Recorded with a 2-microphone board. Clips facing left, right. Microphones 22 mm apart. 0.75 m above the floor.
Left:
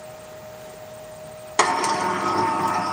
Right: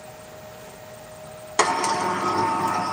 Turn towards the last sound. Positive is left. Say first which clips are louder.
# left 1 dB
turn(degrees=5)  # may be behind; listen again after turning